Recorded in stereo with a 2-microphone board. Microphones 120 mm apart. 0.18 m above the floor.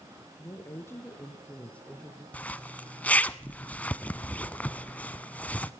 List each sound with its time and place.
0.4 s a woman speaking: 25° left (ahead or behind), 3 m; by 2.2 s 5° left (ahead or behind), 2.5 m
2.3 s a zipper: 10° left (ahead or behind), 0.6 m